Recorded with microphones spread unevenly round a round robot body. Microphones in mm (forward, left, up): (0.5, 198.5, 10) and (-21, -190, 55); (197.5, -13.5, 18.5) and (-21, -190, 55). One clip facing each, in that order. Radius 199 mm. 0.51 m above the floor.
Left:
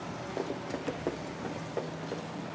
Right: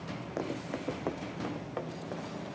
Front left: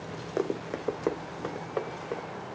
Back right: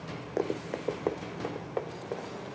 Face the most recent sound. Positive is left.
turn(degrees=-30)